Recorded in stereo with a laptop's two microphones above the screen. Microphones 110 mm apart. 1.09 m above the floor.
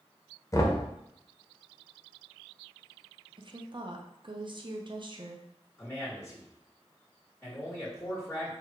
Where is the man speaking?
15° left (ahead or behind), 1.4 m.